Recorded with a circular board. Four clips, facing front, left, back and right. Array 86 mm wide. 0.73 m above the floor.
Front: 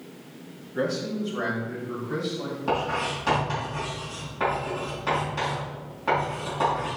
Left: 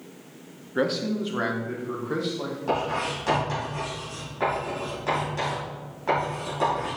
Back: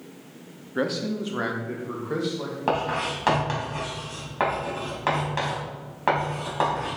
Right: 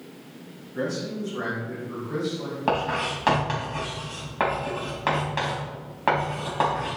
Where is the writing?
135° right, 3 m.